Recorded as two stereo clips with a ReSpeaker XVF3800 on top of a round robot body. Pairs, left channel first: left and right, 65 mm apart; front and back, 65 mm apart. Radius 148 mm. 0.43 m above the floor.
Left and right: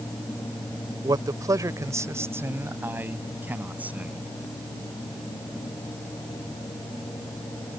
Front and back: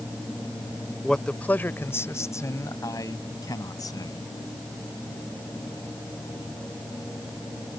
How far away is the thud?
No thud in this recording.